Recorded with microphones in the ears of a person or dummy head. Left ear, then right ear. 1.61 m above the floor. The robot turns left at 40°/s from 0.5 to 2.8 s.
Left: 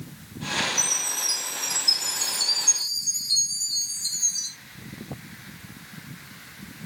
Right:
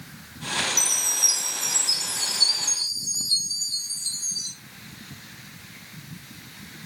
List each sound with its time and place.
0.8 s a chime: 160° right, 0.7 m; by 4.5 s 120° left, 0.7 m